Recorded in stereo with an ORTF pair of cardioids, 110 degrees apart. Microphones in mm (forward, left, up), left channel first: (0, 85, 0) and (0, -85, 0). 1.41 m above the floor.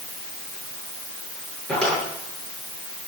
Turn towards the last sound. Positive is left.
turn(degrees=5)